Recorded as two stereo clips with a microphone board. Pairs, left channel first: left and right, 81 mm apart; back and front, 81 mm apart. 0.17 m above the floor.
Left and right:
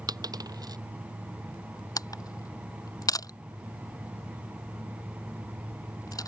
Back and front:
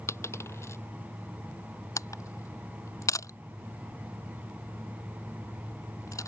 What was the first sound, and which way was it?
A dropped coin, 125° right.